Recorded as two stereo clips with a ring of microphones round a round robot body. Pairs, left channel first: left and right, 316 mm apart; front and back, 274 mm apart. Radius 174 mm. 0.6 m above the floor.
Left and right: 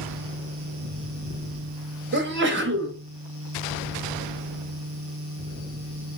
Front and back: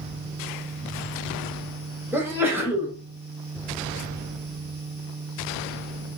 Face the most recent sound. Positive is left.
turn(degrees=-105)